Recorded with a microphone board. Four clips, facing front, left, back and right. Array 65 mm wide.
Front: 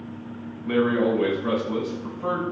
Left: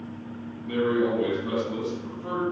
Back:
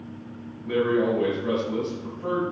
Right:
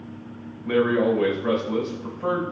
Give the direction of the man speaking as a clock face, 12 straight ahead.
2 o'clock.